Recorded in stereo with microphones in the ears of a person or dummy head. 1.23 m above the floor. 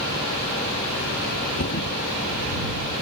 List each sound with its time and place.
1.6 s a thud: 55° left (ahead or behind)